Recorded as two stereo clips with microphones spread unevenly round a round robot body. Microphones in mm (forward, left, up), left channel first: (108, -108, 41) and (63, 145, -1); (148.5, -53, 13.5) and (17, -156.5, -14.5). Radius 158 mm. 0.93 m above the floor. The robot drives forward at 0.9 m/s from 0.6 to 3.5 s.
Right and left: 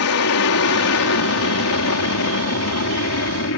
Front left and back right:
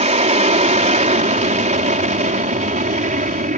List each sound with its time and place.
0.0 s an aircraft: 110° right; by 3.6 s 115° right